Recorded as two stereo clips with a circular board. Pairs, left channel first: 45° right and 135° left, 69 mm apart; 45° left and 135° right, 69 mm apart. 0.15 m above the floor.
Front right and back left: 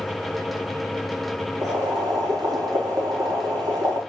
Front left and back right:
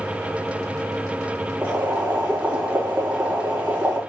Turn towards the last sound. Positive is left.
turn(degrees=155)